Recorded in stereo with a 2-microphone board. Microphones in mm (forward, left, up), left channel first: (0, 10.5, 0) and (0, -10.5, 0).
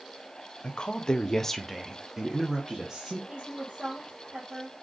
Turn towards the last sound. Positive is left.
turn(degrees=-70)  # may be behind; listen again after turning